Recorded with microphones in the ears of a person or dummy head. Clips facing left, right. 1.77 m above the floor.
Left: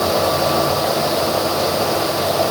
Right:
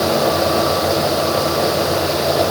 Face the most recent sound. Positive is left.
No sound to turn to.